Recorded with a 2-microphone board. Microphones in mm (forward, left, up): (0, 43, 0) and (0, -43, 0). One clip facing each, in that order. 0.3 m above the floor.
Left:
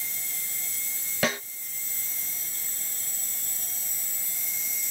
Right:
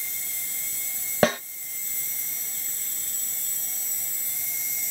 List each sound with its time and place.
1.2 s a snare drum: 40° right (ahead or behind), 1.2 m